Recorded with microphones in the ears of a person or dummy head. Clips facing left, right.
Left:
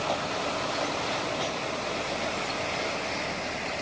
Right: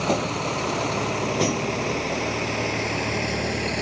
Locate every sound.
0.0 s a vehicle: 60° right (ahead or behind); by 3.8 s 70° right (ahead or behind)